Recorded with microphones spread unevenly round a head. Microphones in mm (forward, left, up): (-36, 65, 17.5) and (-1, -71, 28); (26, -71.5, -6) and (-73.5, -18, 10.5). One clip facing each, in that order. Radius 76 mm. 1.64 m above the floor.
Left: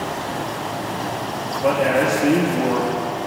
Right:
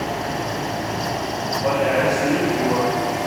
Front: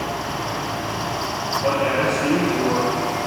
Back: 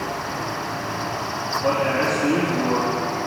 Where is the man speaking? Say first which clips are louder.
Left 2 dB, front 1 dB; 25° left, 2 m.